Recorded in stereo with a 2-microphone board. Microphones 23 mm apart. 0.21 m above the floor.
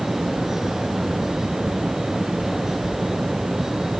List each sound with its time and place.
Only background noise.